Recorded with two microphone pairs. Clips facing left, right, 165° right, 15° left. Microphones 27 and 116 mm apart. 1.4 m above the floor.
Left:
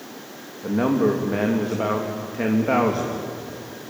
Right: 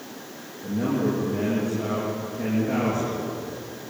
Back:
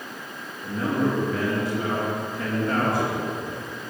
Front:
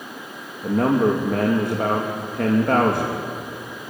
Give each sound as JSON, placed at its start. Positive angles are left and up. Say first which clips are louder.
{"t": 0.6, "sound": "a man speaking", "louder": "left 5 dB, front 6 dB", "azimuth_deg": 50, "distance_m": 2.5}